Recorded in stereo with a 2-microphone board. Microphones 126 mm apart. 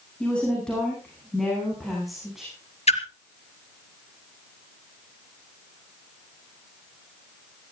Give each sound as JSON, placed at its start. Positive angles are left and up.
{"t": 0.2, "sound": "a woman speaking", "side_deg": 10, "distance_m": 10.0}
{"t": 2.9, "sound": "a splash", "side_deg": 55, "distance_m": 1.9}